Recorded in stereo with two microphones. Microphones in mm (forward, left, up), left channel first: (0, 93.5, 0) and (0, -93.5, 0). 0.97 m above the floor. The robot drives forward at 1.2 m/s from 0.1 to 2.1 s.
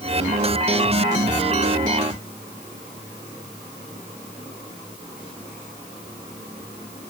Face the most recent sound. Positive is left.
No sound to turn to.